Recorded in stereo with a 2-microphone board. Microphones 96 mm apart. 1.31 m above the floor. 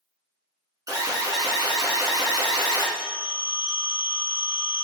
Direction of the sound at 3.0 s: 55° right (ahead or behind).